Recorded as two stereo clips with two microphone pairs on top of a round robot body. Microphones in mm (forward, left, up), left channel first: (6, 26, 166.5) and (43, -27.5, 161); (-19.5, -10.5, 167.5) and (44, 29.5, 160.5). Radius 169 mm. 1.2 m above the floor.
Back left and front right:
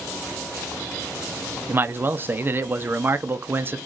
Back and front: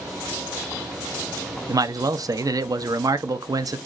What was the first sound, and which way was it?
A man speaking, straight ahead.